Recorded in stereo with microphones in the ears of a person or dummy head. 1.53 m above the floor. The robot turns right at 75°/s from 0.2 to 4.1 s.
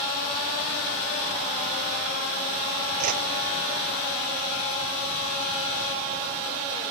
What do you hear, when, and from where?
3.0 s a whoosh: 40° right (ahead or behind), 0.6 m; by 3.2 s 55° right (ahead or behind), 0.6 m